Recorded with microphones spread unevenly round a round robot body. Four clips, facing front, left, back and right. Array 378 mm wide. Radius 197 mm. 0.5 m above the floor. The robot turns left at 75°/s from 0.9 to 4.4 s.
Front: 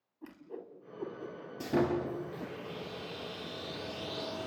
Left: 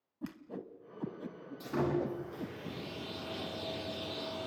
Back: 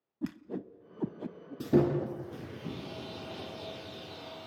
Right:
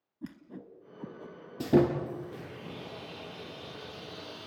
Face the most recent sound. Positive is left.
turn(degrees=40)